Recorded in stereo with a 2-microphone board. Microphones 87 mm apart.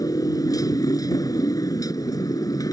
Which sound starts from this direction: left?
A motorcycle, at 0.0 s.